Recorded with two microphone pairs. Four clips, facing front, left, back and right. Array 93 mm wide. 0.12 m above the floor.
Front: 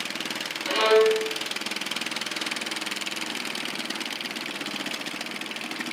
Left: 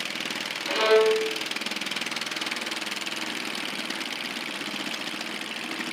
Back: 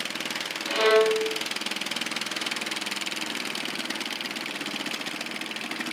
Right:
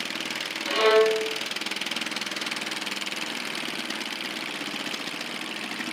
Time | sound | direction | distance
0.7 | a violin | 20° right | 2 m